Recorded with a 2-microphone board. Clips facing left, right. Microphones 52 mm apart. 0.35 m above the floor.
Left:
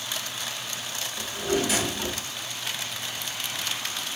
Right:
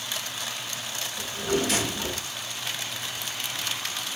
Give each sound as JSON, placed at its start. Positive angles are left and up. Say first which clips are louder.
{"t": 1.2, "sound": "a drawer", "louder": "even", "side_deg": 10, "distance_m": 1.3}